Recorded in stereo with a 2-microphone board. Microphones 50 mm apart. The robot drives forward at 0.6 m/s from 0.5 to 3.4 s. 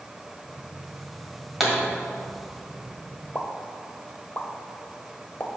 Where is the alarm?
I don't hear an alarm.